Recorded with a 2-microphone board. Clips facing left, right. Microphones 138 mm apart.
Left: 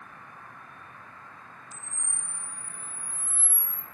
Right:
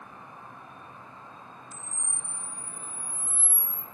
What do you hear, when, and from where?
0.0 s an insect: 20° right (ahead or behind), 1.1 m
1.7 s a camera shutter: 30° left (ahead or behind), 1.6 m